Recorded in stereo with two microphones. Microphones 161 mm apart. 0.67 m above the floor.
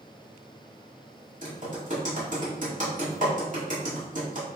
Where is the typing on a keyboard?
50° right (ahead or behind), 1.9 m.